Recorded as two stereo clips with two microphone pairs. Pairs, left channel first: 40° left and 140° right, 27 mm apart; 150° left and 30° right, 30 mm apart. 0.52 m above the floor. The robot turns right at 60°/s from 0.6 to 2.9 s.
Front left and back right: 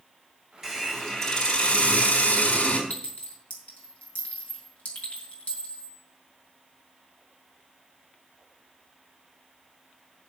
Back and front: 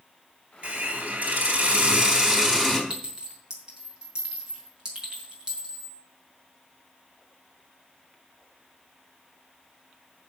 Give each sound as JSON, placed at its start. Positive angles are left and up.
{"t": 0.6, "sound": "a hiss", "azimuth_deg": -75, "distance_m": 4.0}
{"t": 2.9, "sound": "a clink", "azimuth_deg": 25, "distance_m": 4.5}